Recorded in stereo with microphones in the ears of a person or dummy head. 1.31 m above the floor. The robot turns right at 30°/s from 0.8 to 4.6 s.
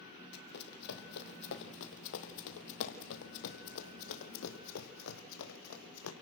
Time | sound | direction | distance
0.3 | running footsteps | 60° left (ahead or behind) | 3.5 m